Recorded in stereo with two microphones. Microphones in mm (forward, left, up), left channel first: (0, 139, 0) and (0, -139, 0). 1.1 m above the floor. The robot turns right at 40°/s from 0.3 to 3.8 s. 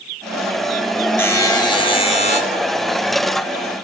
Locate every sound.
1.2 s a buzzer: 10° left (ahead or behind), 0.7 m; by 2.4 s 25° left (ahead or behind), 0.7 m